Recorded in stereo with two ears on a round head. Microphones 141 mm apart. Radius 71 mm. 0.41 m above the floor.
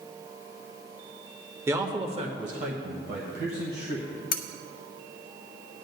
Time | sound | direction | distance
1.7 | a man speaking | 15° right (ahead or behind) | 0.9 m
4.3 | cutlery clinking | 60° left (ahead or behind) | 0.8 m